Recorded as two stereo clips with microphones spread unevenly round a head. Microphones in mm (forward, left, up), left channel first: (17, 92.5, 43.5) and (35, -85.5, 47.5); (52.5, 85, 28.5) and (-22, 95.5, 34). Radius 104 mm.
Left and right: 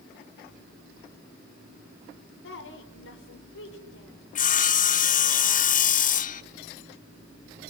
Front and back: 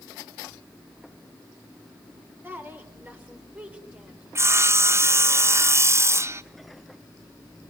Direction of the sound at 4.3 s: 120° left.